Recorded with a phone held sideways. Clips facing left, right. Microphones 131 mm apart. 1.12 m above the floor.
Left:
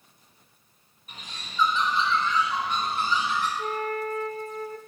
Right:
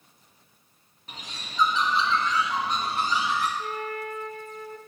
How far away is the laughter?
I don't hear laughter.